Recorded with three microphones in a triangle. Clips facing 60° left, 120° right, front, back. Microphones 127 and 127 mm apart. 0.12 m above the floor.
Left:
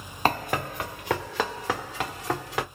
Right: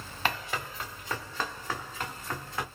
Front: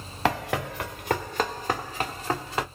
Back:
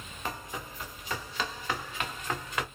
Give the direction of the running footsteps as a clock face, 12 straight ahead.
12 o'clock.